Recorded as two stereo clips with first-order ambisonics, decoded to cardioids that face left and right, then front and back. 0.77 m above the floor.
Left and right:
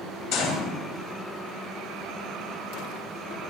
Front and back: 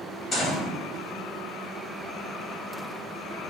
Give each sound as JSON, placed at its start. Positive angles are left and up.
{"t": 0.3, "sound": "a gunshot", "azimuth_deg": 60, "distance_m": 2.5}